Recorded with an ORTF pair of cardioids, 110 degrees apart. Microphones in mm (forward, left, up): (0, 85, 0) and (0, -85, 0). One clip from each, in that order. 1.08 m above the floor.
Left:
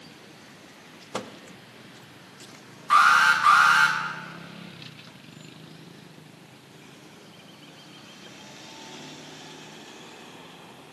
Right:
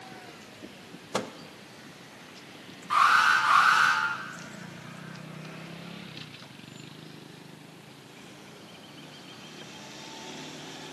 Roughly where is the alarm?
Ahead left.